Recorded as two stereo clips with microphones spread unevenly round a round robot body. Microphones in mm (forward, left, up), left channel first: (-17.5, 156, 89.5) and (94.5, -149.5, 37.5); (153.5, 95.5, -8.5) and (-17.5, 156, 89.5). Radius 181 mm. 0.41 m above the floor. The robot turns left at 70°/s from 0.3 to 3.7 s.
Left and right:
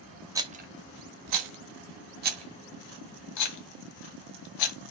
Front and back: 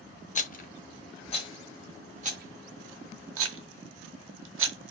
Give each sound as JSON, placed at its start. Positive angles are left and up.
{"t": 0.3, "sound": "a rattle", "azimuth_deg": 5, "distance_m": 0.9}